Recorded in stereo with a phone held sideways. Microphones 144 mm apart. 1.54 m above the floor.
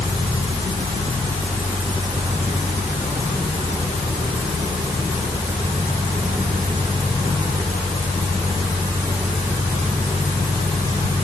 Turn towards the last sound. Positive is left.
No sound to turn to.